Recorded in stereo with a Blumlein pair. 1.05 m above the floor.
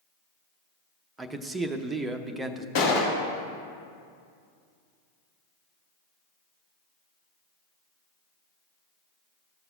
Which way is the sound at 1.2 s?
10° right.